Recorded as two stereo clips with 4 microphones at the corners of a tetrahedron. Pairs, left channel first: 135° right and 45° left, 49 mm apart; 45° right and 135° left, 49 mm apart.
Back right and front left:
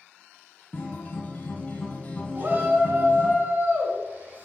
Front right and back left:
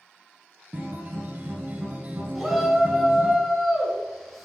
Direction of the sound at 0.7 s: 175° left.